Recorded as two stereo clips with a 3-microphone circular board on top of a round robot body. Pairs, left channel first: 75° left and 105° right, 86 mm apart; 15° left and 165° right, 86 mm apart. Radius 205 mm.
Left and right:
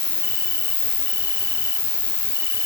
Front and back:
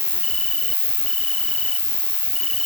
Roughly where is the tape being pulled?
I don't hear tape being pulled.